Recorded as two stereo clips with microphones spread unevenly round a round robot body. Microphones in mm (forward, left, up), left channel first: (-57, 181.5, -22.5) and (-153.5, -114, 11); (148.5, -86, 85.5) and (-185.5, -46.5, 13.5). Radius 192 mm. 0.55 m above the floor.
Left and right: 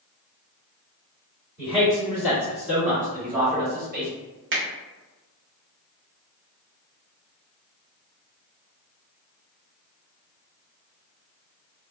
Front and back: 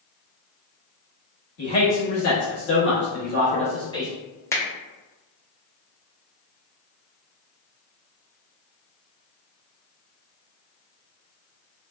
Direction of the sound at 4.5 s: 100° right.